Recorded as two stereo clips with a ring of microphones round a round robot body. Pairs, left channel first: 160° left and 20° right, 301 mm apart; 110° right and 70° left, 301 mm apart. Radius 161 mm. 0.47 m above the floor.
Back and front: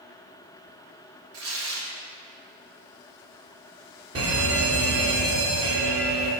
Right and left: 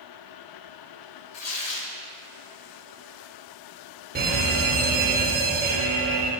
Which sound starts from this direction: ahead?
An alarm, at 4.2 s.